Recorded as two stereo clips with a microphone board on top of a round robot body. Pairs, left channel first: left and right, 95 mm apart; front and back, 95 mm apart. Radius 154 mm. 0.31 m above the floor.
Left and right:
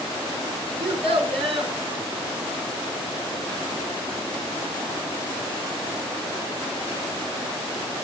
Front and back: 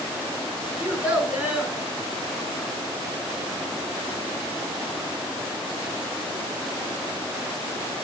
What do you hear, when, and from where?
0.8 s a child speaking: 105° right, 4 m